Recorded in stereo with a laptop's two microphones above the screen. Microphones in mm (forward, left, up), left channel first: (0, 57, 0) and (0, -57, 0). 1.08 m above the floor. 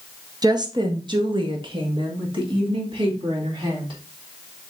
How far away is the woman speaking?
About 0.7 m.